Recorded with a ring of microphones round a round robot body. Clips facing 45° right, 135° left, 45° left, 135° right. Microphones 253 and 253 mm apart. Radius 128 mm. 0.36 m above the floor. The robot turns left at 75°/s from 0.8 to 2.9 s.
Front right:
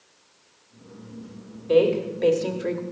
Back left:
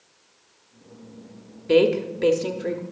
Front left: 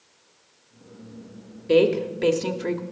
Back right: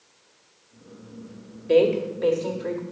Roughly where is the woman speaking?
Left.